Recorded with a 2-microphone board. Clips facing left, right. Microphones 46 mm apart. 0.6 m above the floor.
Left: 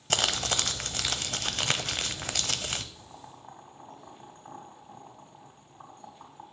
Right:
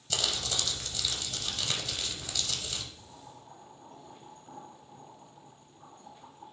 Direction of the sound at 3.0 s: 75° left (ahead or behind).